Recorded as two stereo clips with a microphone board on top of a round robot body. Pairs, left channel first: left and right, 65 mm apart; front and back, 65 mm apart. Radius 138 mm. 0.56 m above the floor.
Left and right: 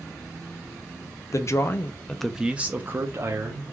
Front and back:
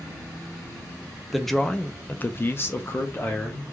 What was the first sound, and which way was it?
A man speaking, 90° left.